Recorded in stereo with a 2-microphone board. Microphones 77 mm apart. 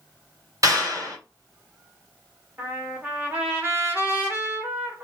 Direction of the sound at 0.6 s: 40° right (ahead or behind).